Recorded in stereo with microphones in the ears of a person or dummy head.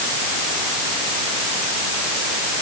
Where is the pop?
I don't hear a pop.